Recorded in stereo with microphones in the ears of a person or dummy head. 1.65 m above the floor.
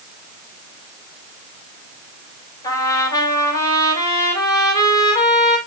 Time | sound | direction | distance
2.6 | a trumpet | 15° left (ahead or behind) | 5.5 m